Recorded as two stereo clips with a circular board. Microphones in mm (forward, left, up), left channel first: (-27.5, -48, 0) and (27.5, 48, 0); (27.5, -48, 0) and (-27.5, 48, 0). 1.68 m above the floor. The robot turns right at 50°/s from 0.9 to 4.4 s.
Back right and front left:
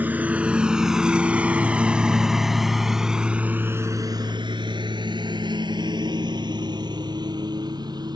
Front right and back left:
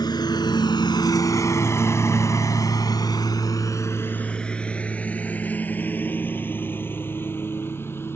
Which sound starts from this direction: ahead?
A lawn mower, at 0.0 s.